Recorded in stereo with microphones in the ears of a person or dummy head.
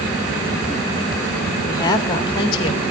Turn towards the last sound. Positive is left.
turn(degrees=25)  # may be behind; listen again after turning